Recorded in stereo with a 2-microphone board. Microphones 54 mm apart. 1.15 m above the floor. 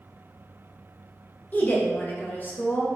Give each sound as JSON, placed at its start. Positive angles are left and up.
{"t": 1.5, "sound": "a woman speaking", "side_deg": 35, "distance_m": 0.6}